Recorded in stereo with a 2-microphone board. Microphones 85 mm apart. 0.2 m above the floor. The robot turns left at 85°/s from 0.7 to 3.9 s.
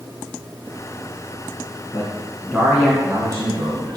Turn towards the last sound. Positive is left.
turn(degrees=-115)